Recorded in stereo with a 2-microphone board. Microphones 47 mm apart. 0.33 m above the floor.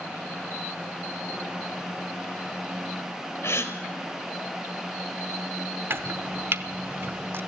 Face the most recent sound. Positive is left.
turn(degrees=-55)  # may be behind; listen again after turning